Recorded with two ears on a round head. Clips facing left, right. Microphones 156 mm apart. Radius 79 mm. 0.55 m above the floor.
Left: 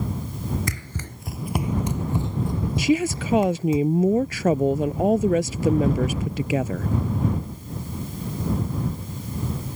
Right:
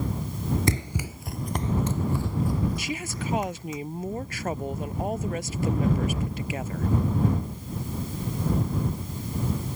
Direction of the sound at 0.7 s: 25° right (ahead or behind).